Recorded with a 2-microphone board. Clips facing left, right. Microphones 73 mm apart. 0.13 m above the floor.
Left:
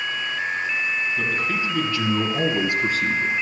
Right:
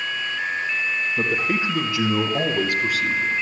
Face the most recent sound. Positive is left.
turn(degrees=45)  # may be behind; listen again after turning